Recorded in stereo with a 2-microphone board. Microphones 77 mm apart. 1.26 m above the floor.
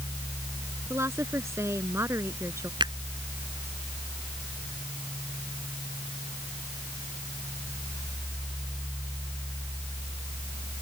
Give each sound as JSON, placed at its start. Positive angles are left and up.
{"t": 0.9, "sound": "a woman speaking", "side_deg": -35}
{"t": 2.8, "sound": "a finger snap", "side_deg": -75}